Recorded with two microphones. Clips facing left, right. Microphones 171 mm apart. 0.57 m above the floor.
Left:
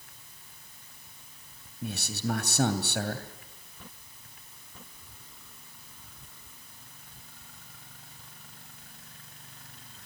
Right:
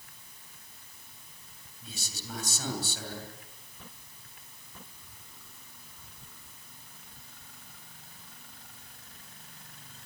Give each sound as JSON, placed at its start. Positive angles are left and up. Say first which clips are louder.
{"t": 1.8, "sound": "a man speaking", "louder": "left 13 dB", "side_deg": 70, "distance_m": 3.0}